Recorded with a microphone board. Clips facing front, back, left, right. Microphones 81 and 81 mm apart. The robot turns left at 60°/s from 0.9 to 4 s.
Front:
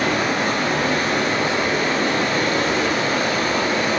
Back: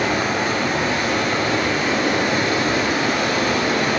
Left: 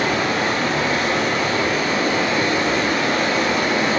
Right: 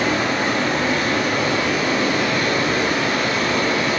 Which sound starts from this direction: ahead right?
Running water, at 0.0 s.